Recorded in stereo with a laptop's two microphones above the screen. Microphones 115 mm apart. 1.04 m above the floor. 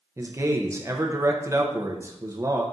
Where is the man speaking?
25° right (ahead or behind), 0.6 m.